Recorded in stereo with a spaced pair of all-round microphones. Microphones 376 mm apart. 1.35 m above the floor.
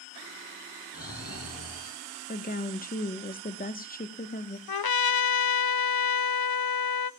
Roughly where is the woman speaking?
Left.